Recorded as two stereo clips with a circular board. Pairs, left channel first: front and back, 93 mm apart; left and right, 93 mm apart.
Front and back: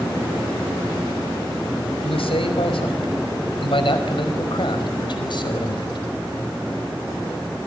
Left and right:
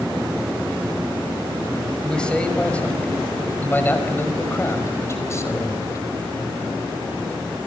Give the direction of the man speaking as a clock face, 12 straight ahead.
12 o'clock.